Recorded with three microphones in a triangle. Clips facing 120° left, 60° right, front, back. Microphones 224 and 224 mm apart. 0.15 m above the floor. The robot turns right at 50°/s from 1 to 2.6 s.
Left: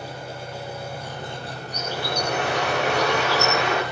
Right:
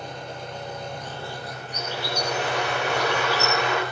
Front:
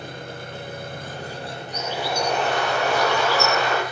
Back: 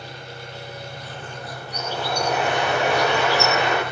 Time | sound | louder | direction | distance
0.0 | an engine running | left 1 dB, front 3 dB | 35° left | 4 m
1.7 | a bird | left 2 dB, even | 60° left | 10 m